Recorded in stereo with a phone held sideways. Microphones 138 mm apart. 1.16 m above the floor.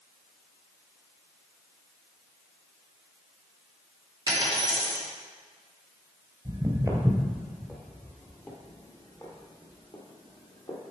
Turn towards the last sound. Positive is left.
turn(degrees=45)  # may be behind; listen again after turning